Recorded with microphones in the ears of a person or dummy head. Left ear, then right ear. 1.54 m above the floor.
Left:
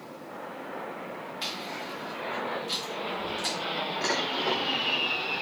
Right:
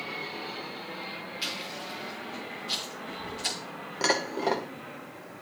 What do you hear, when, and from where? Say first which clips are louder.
1.4 s chewing: even; 20° left (ahead or behind), 5.5 m
4.0 s dishes clattering: right 3 dB; 15° right (ahead or behind), 0.7 m